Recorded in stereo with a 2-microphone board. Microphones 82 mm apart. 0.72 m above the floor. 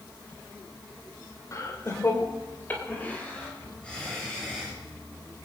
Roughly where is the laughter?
Left.